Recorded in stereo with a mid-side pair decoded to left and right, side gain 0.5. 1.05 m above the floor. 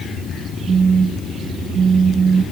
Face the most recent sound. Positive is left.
turn(degrees=-35)